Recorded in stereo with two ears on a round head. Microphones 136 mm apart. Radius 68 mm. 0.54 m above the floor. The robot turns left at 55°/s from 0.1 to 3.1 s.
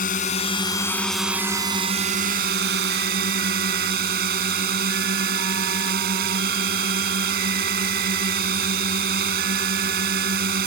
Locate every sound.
0.0 s a drone: 60° left; by 10.7 s 105° right